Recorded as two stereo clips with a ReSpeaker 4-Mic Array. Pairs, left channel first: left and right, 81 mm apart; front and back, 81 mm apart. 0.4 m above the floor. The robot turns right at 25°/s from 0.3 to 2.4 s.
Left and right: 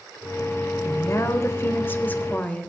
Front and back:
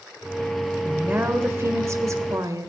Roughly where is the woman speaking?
Behind left.